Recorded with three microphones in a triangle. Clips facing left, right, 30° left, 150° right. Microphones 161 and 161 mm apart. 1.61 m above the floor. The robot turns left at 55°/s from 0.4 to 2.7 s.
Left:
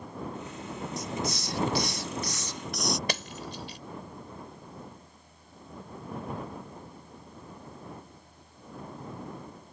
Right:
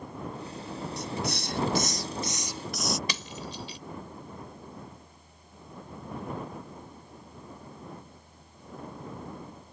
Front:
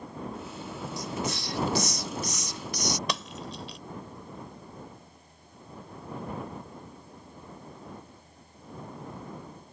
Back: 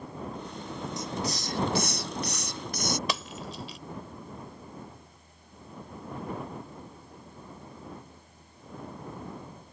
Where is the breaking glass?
120° left.